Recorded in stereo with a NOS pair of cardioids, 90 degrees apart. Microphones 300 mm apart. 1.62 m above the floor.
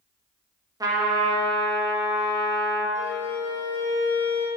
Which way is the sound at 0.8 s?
10° right.